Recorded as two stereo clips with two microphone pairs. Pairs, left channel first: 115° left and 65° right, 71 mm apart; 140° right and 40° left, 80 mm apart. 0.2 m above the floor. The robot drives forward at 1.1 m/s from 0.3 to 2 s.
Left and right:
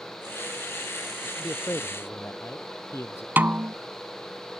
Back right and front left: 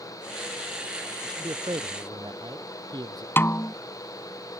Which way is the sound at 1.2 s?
60° left.